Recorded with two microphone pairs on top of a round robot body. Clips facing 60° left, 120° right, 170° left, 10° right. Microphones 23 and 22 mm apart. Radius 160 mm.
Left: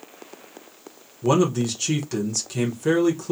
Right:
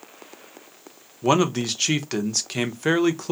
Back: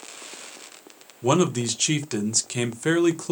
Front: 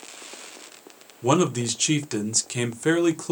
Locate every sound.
1.2 s a man speaking: 100° right, 0.8 m